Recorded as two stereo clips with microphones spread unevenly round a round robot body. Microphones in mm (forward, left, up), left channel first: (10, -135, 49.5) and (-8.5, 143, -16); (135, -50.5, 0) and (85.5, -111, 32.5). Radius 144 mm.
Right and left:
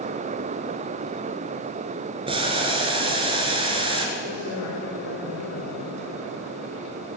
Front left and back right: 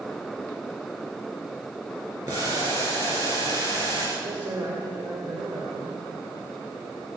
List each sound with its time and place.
2.3 s boiling: 170° left, 2 m
4.2 s a man speaking: 95° right, 2.5 m